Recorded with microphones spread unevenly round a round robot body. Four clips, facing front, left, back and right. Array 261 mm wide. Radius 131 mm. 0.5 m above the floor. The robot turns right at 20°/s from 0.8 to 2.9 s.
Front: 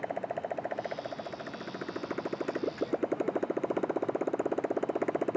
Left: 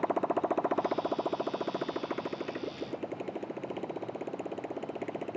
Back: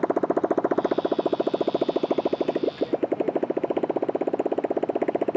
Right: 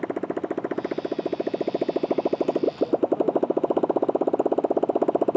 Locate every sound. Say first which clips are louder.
0.0 s a motorcycle: right 2 dB, back 12 dB; 155° right; by 5.4 s 115° right